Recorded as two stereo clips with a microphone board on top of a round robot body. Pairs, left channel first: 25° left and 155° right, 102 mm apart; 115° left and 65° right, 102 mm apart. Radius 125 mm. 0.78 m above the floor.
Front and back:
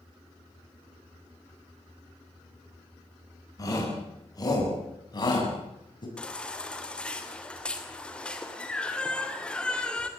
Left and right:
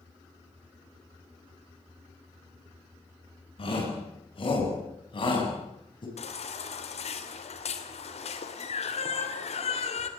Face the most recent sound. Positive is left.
turn(degrees=105)